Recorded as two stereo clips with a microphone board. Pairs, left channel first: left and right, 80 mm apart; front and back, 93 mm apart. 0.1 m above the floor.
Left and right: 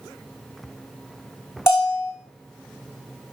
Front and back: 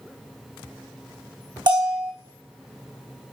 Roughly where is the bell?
Behind left.